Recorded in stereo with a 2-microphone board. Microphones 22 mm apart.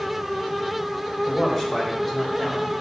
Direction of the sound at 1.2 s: 20° left (ahead or behind).